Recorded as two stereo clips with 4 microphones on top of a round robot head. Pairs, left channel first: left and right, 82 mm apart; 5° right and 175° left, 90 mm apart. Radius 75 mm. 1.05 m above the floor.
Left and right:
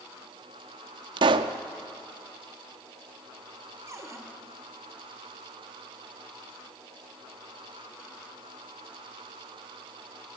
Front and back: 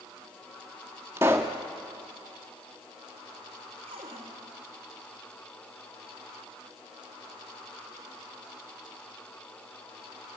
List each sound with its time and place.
1.2 s a pop: 110° right, 0.9 m
3.9 s a cupboard door: 140° right, 2.5 m